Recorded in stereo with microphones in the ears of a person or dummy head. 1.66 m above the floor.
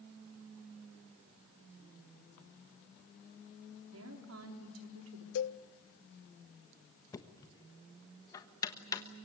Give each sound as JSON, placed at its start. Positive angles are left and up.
{"t": 3.9, "sound": "a woman speaking", "side_deg": -85, "distance_m": 4.5}
{"t": 5.3, "sound": "a cowbell", "side_deg": 70, "distance_m": 0.7}
{"t": 7.1, "sound": "knocking", "side_deg": 20, "distance_m": 1.3}